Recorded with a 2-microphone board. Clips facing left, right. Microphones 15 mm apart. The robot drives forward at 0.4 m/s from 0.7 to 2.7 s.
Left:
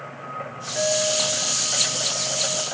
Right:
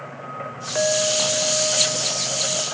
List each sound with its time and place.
0.8 s a clink: 70° right (ahead or behind), 0.8 m; by 2.6 s 40° right (ahead or behind), 1.3 m